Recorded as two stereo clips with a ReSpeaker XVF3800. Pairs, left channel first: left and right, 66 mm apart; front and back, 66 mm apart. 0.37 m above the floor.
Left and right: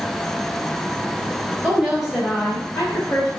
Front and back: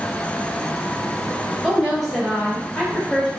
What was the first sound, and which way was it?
A woman speaking, 115° right.